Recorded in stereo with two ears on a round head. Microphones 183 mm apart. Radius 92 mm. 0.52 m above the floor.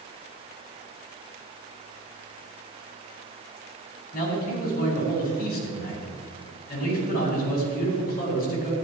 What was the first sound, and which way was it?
A man speaking, 45° left (ahead or behind).